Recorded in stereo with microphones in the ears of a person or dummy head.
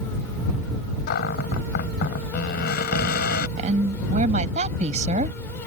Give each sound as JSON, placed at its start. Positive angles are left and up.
{"t": 1.1, "sound": "a cupboard door", "side_deg": 50}
{"t": 3.6, "sound": "a woman speaking", "side_deg": -40}